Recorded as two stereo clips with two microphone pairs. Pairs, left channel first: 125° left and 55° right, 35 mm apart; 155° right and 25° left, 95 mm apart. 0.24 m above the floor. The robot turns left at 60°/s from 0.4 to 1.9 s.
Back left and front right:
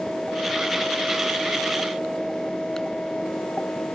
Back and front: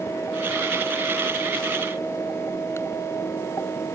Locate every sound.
Only background noise.